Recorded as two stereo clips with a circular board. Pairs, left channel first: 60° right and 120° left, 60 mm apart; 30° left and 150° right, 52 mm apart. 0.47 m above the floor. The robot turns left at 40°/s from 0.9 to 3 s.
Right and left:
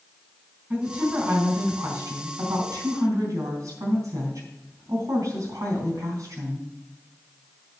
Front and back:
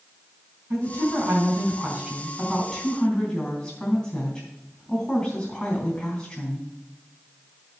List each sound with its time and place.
0.7 s a woman speaking: 170° right, 3.5 m; by 6.7 s 105° left, 3.5 m